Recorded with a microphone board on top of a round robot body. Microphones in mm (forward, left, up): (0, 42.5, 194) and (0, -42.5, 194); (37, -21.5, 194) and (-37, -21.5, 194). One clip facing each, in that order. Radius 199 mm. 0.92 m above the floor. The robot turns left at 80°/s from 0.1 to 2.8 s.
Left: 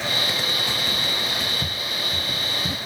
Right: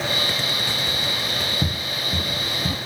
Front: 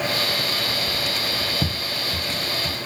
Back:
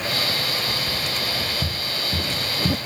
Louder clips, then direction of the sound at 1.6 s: Right 2 dB, front 1 dB; 40° right.